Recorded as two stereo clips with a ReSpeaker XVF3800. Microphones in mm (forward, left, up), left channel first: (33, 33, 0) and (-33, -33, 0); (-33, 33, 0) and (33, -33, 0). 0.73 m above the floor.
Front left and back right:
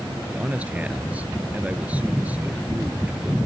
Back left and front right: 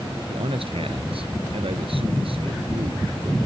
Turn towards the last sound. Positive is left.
turn(degrees=-60)